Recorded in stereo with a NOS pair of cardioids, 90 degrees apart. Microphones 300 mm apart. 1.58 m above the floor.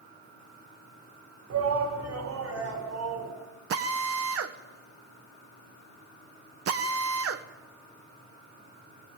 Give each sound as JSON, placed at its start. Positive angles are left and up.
{"t": 1.5, "sound": "a shout", "azimuth_deg": -60, "distance_m": 6.0}
{"t": 3.7, "sound": "a drill", "azimuth_deg": -50, "distance_m": 1.5}